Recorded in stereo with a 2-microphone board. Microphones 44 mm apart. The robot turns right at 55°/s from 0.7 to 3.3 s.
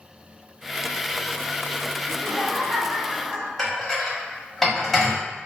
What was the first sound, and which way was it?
Laughter, 145° left.